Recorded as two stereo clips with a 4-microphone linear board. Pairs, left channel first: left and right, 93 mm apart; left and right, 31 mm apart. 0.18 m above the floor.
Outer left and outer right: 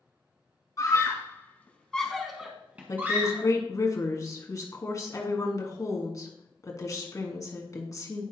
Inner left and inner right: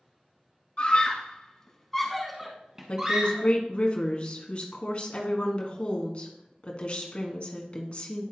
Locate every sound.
0.8 s a scream: 40° left (ahead or behind), 1.4 m; by 3.5 s 30° right (ahead or behind), 1.6 m
2.9 s a woman speaking: 35° left (ahead or behind), 1.6 m